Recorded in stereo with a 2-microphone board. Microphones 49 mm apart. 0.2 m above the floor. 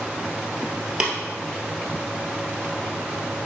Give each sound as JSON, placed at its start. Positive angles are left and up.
{"t": 1.0, "sound": "tapping", "side_deg": -15, "distance_m": 1.8}